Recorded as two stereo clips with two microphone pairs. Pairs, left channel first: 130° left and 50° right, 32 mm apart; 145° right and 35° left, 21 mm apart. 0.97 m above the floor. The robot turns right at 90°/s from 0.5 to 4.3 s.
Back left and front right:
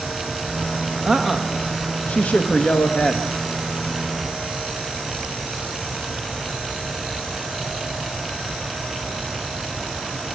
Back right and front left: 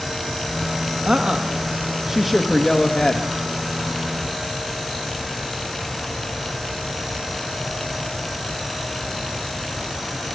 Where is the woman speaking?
10° left, 1.4 m; by 3.3 s 155° right, 1.4 m.